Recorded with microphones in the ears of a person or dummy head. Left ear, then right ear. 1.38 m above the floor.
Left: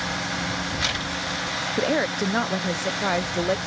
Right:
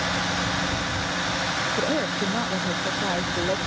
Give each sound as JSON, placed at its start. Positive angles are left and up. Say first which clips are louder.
{"t": 1.8, "sound": "a woman speaking", "louder": "left 1 dB", "side_deg": 65}